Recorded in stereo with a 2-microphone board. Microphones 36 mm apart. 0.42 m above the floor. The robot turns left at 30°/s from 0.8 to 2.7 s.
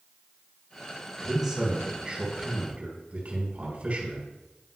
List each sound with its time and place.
1.2 s a man speaking: straight ahead, 4 m; by 4.3 s 45° right, 4 m